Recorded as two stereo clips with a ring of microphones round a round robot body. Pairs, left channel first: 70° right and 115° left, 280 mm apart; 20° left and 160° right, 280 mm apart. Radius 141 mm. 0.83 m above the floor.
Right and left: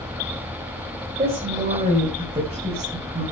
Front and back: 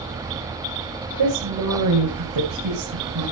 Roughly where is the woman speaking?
Behind.